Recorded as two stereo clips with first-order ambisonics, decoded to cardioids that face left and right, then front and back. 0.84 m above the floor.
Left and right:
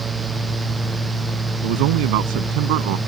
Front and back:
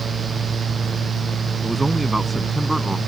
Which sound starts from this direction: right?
A man speaking, at 1.6 s.